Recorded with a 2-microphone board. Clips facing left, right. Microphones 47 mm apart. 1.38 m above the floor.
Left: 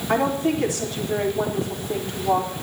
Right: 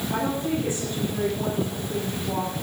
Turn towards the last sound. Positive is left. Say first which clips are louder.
# left 6 dB
turn(degrees=85)